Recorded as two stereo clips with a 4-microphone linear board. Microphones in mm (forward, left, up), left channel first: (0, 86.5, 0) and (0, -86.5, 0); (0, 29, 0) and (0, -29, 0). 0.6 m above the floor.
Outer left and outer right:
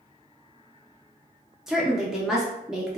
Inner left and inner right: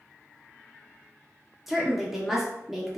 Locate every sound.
1.7 s a woman speaking: 5° right (ahead or behind), 0.7 m